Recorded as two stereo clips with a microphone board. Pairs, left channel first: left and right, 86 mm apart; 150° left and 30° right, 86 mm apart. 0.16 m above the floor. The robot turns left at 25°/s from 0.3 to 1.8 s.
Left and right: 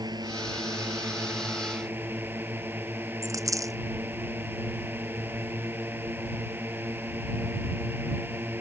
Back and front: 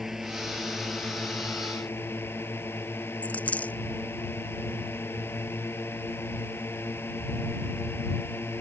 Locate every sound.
0.0 s a drone: 115° right; by 8.6 s 150° right
3.2 s a dropped coin: 140° right